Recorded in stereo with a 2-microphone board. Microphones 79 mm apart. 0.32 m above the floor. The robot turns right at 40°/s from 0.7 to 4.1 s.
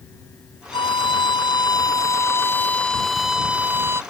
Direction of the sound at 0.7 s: 80° left.